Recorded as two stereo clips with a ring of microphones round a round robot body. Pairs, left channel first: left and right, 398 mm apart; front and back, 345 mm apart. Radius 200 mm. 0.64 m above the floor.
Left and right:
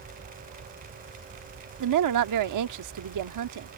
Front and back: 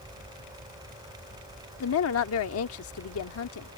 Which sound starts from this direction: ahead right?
A woman speaking, at 1.8 s.